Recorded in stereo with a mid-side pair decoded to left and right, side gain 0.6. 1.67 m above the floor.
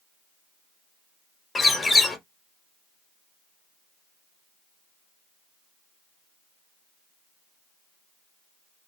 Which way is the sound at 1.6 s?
25° left.